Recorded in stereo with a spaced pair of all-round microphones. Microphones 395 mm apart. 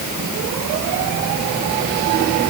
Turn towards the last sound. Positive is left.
No sound to turn to.